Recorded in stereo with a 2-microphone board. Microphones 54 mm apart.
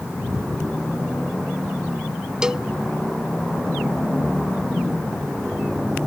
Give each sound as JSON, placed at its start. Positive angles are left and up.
{"t": 2.4, "sound": "a cowbell", "side_deg": -15}